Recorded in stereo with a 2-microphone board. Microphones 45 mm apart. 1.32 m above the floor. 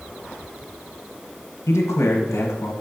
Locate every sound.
1.7 s a man speaking: 80° left, 0.8 m